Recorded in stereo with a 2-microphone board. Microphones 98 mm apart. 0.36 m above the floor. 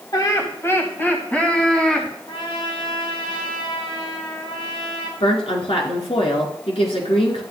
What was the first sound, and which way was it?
Laughter, 40° left (ahead or behind).